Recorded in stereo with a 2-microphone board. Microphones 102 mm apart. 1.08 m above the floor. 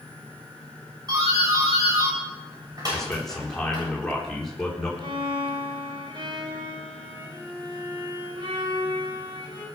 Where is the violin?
45° right (ahead or behind), 5 m.